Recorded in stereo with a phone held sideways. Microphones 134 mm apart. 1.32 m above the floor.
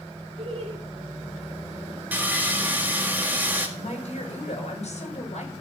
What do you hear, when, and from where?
0.4 s laughter: 50° right (ahead or behind), 2.5 m
2.1 s sawing: 15° right (ahead or behind), 1.9 m
3.8 s a woman speaking: 60° left (ahead or behind), 6 m